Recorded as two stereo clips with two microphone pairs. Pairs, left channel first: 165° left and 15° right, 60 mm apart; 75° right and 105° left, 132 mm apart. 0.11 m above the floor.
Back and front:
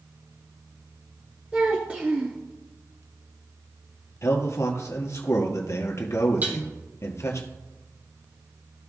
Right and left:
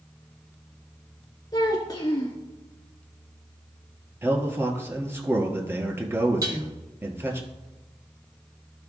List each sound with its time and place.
1.5 s a child speaking: 55° right, 0.9 m
4.2 s a man speaking: 175° left, 1.8 m
6.4 s dishes clattering: 45° left, 2.0 m